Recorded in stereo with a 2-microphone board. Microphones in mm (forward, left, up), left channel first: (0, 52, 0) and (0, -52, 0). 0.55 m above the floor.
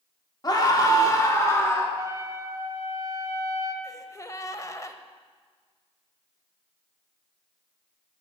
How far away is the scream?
About 1.6 m.